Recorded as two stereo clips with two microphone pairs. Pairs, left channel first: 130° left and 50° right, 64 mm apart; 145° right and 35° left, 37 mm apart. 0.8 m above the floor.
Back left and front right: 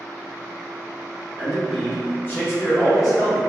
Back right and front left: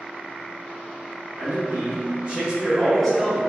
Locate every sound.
1.4 s a man speaking: 40° left, 1.0 m; by 3.4 s 135° left, 1.0 m